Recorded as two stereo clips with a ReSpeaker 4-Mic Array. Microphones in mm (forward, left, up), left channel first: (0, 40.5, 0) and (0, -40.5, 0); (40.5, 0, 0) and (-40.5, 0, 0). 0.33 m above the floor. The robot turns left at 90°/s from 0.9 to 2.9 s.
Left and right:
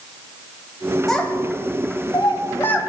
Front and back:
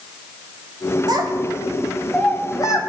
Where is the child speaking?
175° left, 1.3 m; by 2.8 s 20° left, 1.3 m.